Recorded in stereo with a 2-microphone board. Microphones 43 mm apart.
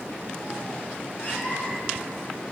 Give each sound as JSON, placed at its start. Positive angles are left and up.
{"t": 1.2, "sound": "a cat meowing", "side_deg": 45, "distance_m": 2.0}